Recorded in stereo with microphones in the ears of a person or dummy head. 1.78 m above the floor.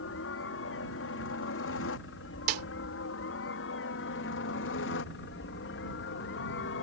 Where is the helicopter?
70° left (ahead or behind); by 6.8 s 65° left (ahead or behind).